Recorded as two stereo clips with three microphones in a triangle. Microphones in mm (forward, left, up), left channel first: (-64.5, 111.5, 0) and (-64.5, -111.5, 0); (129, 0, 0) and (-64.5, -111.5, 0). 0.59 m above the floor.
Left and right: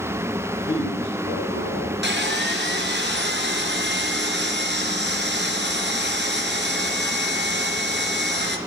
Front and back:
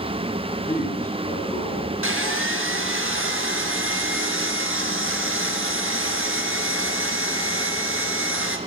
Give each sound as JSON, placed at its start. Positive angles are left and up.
{"t": 0.7, "sound": "a man speaking", "azimuth_deg": 80, "distance_m": 5.0}
{"t": 2.0, "sound": "sawing", "azimuth_deg": -130, "distance_m": 2.5}